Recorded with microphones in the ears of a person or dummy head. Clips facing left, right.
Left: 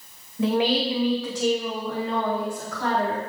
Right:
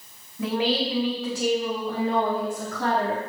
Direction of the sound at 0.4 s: 20° left (ahead or behind).